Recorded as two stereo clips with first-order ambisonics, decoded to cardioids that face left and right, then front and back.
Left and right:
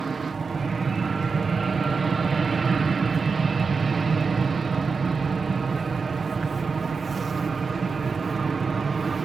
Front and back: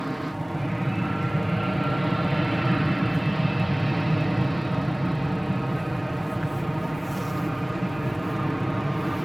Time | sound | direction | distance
0.0 | an aircraft | 105° right | ?